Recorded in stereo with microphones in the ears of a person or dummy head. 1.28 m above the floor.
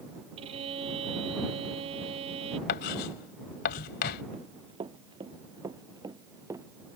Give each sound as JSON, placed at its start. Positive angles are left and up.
{"t": 0.4, "sound": "a violin", "side_deg": -35}
{"t": 2.7, "sound": "writing", "side_deg": 50}
{"t": 4.3, "sound": "running footsteps", "side_deg": -30}